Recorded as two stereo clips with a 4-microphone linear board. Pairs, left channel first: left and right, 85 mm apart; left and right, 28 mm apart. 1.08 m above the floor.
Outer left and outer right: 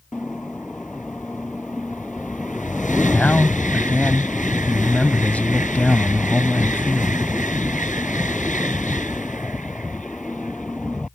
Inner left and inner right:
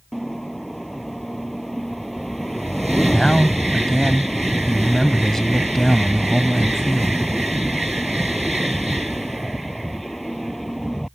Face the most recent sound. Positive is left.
turn(degrees=15)  # may be behind; listen again after turning